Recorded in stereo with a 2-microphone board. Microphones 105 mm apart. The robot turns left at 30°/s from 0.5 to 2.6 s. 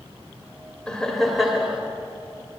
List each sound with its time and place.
0.9 s laughter: 10° left (ahead or behind), 1.8 m; by 1.8 s 10° right (ahead or behind), 1.8 m